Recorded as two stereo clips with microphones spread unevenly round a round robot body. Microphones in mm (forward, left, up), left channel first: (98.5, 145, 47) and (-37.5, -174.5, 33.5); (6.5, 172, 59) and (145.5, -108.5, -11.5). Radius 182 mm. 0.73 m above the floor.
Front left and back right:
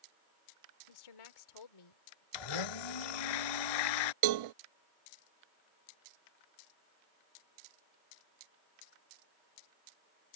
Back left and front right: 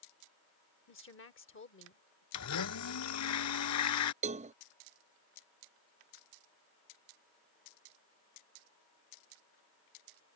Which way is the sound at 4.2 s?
130° right.